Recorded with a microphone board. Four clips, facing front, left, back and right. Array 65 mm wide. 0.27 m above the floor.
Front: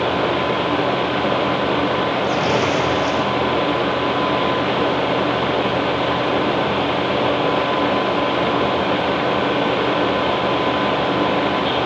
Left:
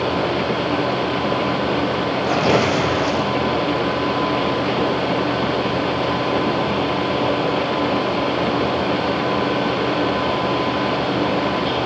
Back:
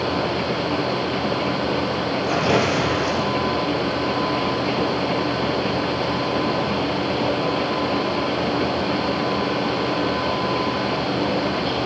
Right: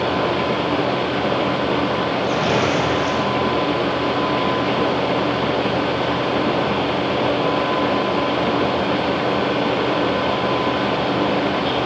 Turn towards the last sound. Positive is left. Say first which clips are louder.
# left 4 dB, front 1 dB
turn(degrees=90)